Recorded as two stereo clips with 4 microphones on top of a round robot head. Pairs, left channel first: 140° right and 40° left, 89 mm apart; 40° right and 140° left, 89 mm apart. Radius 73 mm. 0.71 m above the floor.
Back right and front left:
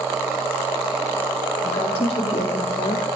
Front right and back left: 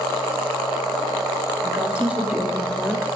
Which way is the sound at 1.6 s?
145° right.